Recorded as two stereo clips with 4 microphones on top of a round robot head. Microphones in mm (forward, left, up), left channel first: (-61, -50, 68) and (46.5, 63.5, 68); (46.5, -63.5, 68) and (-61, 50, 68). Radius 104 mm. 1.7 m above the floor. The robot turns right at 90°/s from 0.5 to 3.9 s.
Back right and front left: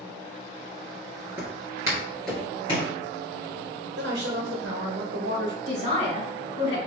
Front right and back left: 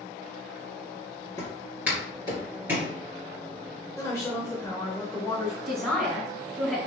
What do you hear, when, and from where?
1.4 s footsteps: 15° right, 1.7 m; by 2.9 s 130° right, 1.8 m
4.0 s a woman speaking: 25° left, 1.0 m
5.7 s a man speaking: 135° right, 2 m